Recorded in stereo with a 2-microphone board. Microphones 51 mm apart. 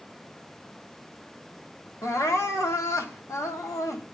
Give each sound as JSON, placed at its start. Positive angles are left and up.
{"t": 2.0, "sound": "crying", "side_deg": 75, "distance_m": 1.5}